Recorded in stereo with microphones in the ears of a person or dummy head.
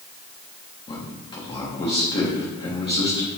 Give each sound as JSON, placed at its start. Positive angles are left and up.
{"t": 0.9, "sound": "a man speaking", "side_deg": 30, "distance_m": 1.1}